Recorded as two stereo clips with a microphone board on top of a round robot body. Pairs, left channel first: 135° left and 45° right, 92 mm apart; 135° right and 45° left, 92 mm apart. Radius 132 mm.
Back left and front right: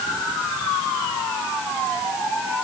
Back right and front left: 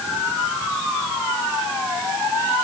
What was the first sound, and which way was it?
Only background noise.